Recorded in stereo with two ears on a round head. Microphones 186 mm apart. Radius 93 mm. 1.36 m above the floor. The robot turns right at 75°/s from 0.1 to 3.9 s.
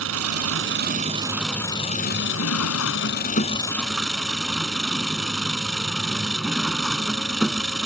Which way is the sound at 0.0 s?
105° right.